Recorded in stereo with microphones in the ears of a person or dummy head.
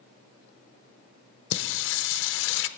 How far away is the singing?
About 0.7 m.